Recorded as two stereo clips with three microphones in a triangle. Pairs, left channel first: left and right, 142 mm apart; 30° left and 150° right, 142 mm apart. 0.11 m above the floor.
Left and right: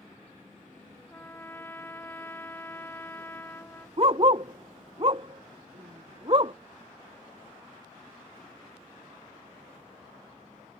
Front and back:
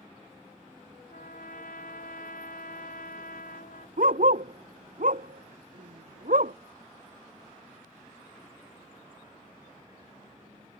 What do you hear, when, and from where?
1.1 s a trumpet: 15° left
4.0 s a dog barking: 140° right